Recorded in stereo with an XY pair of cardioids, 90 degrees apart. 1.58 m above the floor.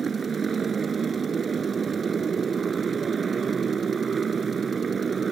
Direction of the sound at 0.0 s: 45° right.